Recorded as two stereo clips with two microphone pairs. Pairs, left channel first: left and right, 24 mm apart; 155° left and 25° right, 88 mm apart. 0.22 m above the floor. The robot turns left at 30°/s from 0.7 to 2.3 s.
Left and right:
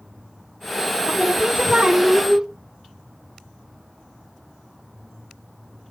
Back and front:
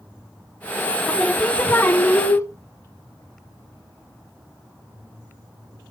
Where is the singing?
115° right, 0.7 m; by 2.5 s 155° right, 0.7 m.